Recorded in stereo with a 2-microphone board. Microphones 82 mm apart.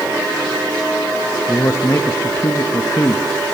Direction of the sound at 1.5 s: 40° left (ahead or behind).